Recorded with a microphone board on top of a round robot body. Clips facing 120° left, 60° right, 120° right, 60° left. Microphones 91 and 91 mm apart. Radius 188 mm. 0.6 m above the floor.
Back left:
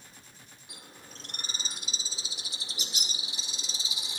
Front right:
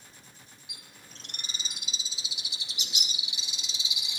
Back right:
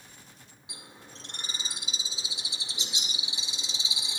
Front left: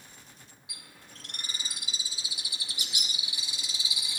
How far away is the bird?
About 2 m.